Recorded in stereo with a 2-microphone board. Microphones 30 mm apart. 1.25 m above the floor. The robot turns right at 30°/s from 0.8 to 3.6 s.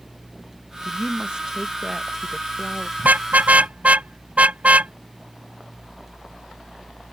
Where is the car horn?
75° right (ahead or behind); by 4.9 s 60° right (ahead or behind).